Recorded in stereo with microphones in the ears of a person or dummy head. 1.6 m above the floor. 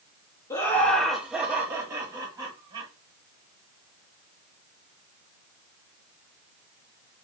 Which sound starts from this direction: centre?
Laughter, at 0.5 s.